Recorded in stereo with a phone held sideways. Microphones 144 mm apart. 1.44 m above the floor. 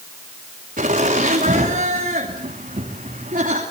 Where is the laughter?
70° right (ahead or behind), 3 m.